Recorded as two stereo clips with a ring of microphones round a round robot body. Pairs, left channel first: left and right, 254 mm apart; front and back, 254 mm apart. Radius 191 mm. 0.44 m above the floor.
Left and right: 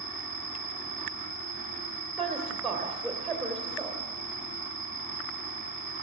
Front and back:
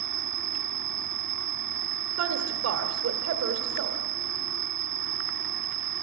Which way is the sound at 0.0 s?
165° left.